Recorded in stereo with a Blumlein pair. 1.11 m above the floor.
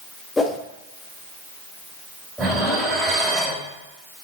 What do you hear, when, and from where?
0.4 s a whoosh: 10° left, 1.0 m
2.4 s dishes clattering: 10° right, 4 m